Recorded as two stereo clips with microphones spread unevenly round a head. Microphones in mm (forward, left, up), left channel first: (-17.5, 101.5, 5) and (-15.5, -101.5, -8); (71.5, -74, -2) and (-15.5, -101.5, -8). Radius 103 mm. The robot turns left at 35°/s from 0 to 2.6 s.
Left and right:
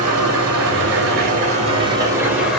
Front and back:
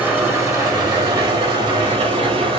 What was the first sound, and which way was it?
An engine running, 90° right.